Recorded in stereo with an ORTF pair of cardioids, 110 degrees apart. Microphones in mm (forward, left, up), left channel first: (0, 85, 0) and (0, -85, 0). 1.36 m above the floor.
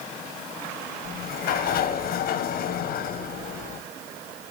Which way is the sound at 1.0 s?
65° left.